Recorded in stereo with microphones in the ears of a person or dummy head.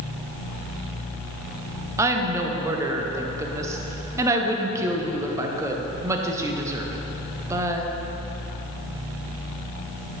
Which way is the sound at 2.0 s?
15° right (ahead or behind).